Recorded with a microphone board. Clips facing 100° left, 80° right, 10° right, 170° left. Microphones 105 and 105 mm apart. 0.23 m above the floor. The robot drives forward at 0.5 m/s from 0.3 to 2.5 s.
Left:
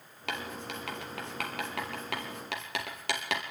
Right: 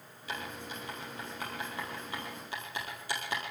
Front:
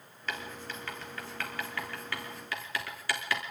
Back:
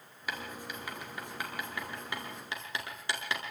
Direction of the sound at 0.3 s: 90° left.